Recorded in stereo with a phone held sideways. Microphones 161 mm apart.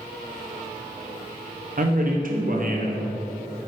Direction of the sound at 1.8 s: 60° right (ahead or behind).